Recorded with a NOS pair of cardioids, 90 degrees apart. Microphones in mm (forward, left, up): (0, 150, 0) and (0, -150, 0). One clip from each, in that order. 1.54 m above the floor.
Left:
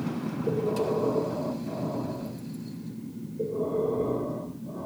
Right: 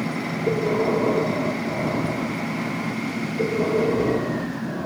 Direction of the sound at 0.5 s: 50° right.